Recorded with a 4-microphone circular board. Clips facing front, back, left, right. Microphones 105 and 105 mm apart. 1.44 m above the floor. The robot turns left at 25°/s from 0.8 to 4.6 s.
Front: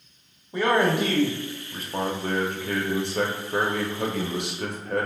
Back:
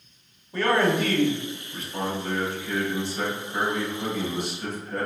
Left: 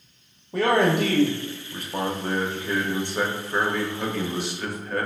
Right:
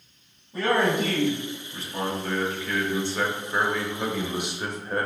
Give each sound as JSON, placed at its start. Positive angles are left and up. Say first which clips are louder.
{"t": 0.5, "sound": "a man speaking", "louder": "even, left 3 dB", "azimuth_deg": 75, "distance_m": 0.6}